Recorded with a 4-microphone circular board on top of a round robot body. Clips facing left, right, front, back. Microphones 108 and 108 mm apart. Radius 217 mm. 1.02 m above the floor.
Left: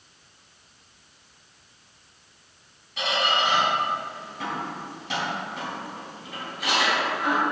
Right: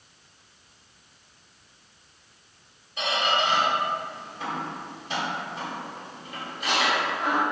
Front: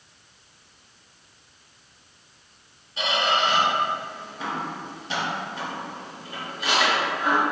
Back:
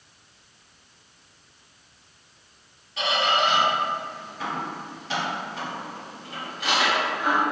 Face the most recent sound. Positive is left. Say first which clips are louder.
# even, even
turn(degrees=75)